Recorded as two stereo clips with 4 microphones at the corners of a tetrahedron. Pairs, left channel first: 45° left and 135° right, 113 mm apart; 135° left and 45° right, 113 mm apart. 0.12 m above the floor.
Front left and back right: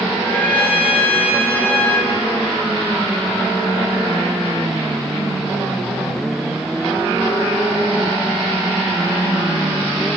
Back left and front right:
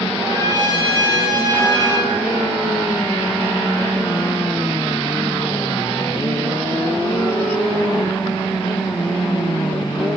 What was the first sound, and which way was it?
A trumpet, 20° right.